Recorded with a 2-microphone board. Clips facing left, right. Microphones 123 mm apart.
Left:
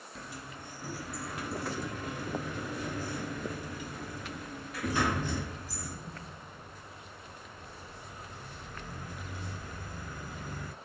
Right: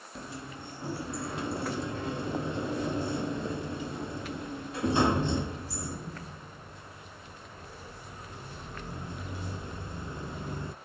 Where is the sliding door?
25° right (ahead or behind), 0.5 m.